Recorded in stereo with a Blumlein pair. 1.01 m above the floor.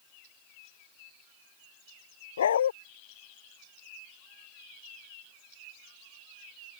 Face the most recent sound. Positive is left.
turn(degrees=65)